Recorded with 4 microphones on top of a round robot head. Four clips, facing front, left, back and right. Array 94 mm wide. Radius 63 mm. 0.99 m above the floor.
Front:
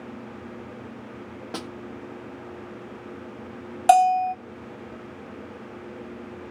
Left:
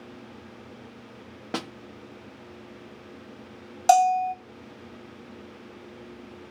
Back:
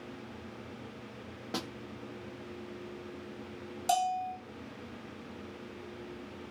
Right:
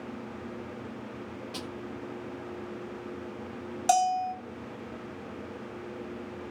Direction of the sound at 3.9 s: 25° left.